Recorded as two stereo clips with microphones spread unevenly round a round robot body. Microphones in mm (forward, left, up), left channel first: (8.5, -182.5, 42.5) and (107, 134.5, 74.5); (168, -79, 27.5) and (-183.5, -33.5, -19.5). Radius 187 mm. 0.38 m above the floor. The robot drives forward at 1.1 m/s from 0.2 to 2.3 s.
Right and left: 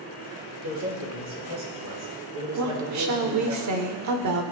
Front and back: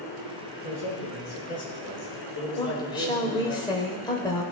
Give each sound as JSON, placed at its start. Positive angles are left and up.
{"t": 0.6, "sound": "a man speaking", "azimuth_deg": 35, "distance_m": 5.5}
{"t": 2.6, "sound": "a woman speaking", "azimuth_deg": 75, "distance_m": 1.3}